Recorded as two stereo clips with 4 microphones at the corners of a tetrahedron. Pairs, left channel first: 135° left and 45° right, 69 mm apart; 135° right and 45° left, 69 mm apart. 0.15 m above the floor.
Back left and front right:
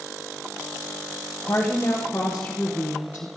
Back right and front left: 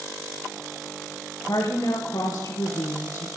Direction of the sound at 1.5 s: 160° right.